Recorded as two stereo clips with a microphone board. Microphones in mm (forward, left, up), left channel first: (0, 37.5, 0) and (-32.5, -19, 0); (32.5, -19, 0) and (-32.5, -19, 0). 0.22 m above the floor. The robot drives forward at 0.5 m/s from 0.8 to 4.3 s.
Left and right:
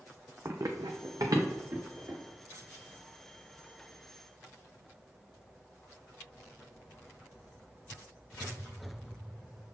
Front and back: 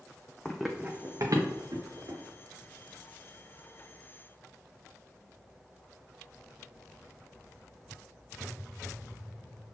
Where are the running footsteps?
75° right, 0.7 m; by 2.2 s 165° right, 2.5 m.